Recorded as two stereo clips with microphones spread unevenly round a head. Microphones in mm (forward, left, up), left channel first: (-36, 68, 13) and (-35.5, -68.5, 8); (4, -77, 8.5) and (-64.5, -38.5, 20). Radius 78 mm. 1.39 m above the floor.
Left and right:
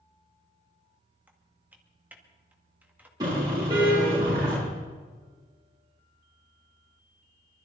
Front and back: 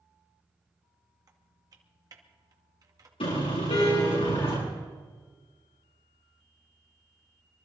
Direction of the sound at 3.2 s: 20° right.